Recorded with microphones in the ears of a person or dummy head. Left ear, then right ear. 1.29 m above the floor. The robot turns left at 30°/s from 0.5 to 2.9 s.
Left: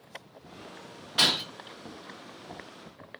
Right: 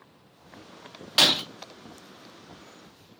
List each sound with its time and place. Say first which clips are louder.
1.2 s breaking glass: right 4 dB; 25° right (ahead or behind), 0.5 m